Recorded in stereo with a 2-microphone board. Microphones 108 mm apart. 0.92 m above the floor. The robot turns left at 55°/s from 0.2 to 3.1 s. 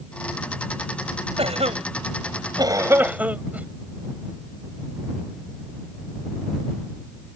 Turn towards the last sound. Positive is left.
turn(degrees=-15)  # may be behind; listen again after turning